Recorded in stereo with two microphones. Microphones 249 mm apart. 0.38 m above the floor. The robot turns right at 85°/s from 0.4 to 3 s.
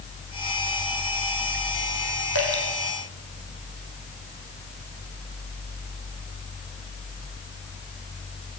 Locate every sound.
2.4 s dripping: 70° right (ahead or behind), 6.5 m; by 2.6 s 85° right, 6.5 m